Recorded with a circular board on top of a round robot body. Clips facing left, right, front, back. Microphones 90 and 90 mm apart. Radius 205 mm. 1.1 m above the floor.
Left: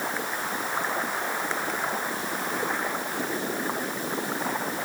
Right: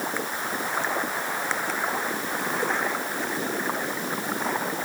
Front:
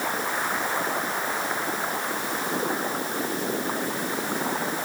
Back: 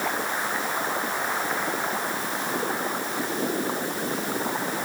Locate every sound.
Only background noise.